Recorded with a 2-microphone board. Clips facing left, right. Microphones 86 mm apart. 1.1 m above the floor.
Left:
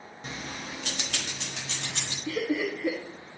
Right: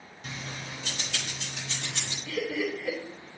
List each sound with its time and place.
0.2 s keys jangling: 30° left (ahead or behind), 0.8 m; by 2.1 s 85° left, 2.5 m
2.2 s laughter: 65° left (ahead or behind), 1.5 m